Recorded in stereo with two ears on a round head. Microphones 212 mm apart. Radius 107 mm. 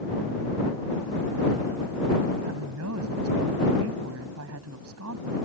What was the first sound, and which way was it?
A woman speaking, 70° right (ahead or behind).